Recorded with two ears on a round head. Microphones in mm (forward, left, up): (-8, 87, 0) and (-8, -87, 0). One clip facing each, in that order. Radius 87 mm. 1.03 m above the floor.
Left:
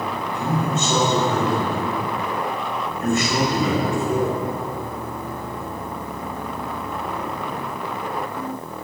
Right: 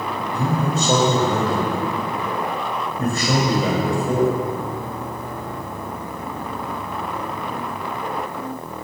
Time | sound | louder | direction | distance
0.3 | a man speaking | right 2 dB | 35° right (ahead or behind) | 5 m